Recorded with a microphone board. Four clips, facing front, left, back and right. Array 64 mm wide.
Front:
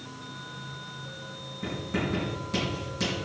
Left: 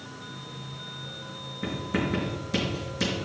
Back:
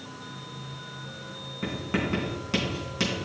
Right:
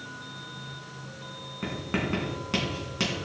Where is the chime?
I don't hear a chime.